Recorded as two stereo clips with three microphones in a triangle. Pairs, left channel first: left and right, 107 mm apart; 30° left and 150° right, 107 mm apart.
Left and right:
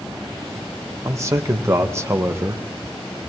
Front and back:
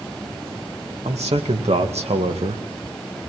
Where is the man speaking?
150° right, 2.5 m; by 2.6 s 160° right, 1.5 m.